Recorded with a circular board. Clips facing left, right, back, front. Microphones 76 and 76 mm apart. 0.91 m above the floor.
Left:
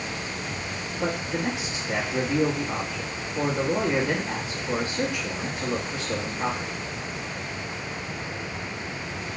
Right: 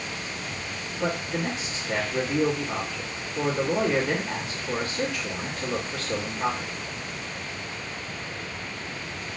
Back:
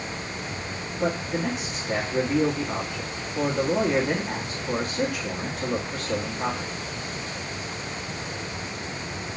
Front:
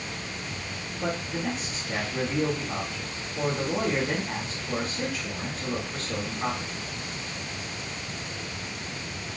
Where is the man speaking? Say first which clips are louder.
Even, back 4 dB; 165° left, 1.2 m.